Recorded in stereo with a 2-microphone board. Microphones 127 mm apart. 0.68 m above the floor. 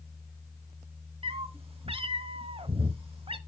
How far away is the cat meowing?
About 0.8 m.